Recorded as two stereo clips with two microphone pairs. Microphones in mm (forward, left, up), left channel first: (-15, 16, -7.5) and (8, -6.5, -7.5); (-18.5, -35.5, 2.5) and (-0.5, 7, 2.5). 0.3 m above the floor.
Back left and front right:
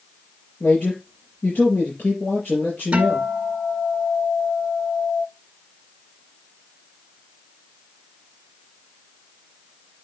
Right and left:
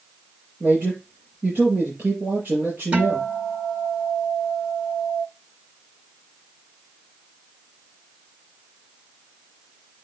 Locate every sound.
0.6 s a man speaking: 115° left, 5 m
2.9 s a guitar: 10° left, 1.5 m